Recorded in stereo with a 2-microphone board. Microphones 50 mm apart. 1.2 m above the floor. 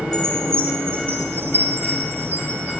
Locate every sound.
0.1 s a chime: 55° right (ahead or behind), 6 m